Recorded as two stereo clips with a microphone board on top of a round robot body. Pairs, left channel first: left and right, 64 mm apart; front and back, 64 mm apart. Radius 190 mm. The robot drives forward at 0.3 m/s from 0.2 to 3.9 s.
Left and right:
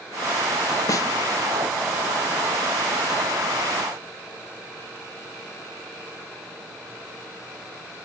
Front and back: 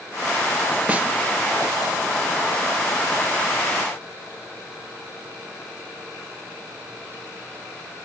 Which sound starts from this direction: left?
A snare drum, at 0.9 s.